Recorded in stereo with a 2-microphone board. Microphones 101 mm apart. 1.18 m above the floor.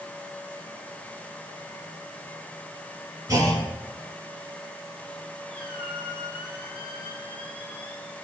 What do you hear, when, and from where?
3.3 s a clunk: 35° right (ahead or behind), 4.5 m
5.5 s a squeak: 60° right (ahead or behind), 6.5 m